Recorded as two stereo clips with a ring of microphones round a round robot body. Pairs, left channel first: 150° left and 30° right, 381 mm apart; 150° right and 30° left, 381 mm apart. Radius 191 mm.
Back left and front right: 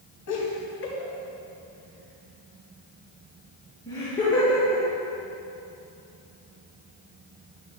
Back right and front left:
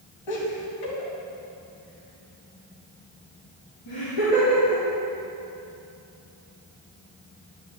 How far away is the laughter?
About 2.5 m.